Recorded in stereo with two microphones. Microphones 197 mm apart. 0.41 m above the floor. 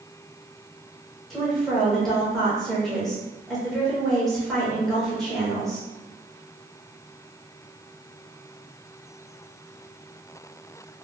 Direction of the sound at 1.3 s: Centre (ahead or behind).